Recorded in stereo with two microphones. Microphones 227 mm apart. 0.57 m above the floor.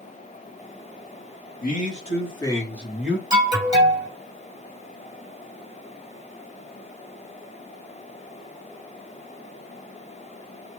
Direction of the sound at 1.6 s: 40° left (ahead or behind).